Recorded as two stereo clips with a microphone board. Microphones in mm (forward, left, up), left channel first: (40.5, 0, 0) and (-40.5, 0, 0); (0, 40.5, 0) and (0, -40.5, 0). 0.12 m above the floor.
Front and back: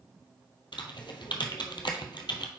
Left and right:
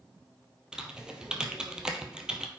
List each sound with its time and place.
0.7 s typing on a keyboard: 10° right, 0.8 m